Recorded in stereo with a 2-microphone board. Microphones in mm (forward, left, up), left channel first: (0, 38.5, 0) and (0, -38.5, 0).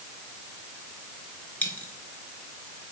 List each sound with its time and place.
1.6 s a dropped coin: 20° left (ahead or behind), 2.5 m